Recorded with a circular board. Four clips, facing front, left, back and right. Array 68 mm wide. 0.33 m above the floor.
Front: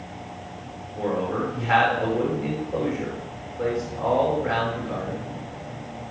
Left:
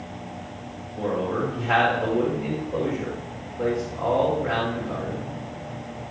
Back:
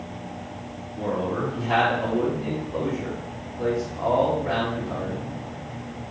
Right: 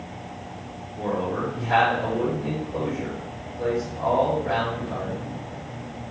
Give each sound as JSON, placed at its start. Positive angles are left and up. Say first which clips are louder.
{"t": 0.9, "sound": "a man speaking", "louder": "left 1 dB, front 1 dB", "azimuth_deg": 40, "distance_m": 4.5}